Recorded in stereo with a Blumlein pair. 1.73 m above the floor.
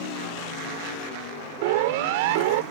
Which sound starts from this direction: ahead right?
A siren, at 1.6 s.